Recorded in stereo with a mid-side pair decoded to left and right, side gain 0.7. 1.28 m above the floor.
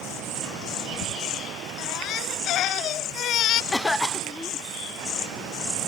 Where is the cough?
15° left.